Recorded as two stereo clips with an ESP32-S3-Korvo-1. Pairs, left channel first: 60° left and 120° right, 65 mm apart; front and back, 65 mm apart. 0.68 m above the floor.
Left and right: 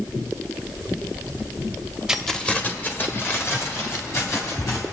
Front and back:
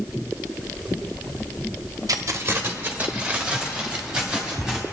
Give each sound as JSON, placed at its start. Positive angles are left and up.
{"t": 2.1, "sound": "keys jangling", "azimuth_deg": 160, "distance_m": 0.6}